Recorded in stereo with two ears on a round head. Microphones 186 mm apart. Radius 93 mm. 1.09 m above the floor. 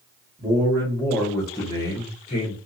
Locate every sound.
0.4 s a man speaking: 5° left (ahead or behind), 1.4 m; by 2.6 s 40° left (ahead or behind), 0.8 m